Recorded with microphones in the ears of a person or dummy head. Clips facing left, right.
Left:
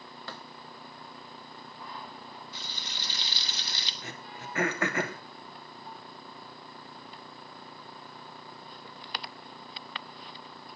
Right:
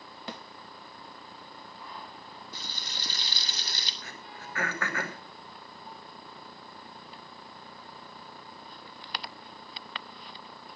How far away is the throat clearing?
About 2.5 m.